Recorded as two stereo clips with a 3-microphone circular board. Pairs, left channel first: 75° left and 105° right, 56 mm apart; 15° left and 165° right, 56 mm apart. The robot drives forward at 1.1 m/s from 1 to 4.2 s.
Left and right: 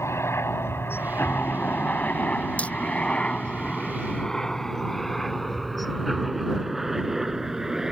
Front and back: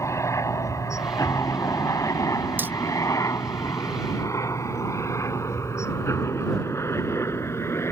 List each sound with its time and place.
0.0 s a helicopter: 40° left; by 7.9 s 25° right
2.6 s hammering: 140° left